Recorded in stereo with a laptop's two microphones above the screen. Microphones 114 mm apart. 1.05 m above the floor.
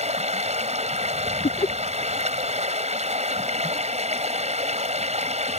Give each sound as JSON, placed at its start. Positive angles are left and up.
{"t": 0.0, "sound": "running water", "side_deg": -80}
{"t": 1.4, "sound": "laughter", "side_deg": 60}